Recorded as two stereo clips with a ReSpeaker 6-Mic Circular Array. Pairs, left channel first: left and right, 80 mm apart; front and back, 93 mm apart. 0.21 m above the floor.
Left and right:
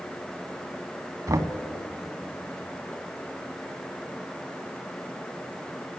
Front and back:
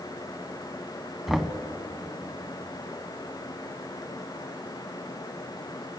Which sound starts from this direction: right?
Knocking, at 1.3 s.